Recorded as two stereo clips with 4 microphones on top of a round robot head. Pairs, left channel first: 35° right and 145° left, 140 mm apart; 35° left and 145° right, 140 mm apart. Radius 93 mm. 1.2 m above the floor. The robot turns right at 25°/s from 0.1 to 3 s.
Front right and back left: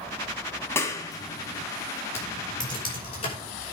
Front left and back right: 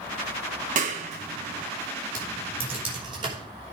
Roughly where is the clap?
Right.